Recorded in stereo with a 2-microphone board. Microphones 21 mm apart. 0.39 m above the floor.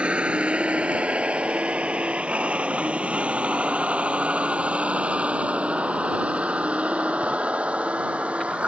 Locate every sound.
0.0 s a vehicle: 65° right (ahead or behind); by 8.7 s 85° right